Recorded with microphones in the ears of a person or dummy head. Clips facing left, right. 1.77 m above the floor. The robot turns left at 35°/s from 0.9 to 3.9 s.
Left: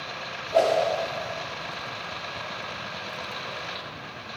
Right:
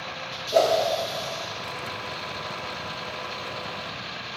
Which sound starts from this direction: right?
A whoosh, at 0.5 s.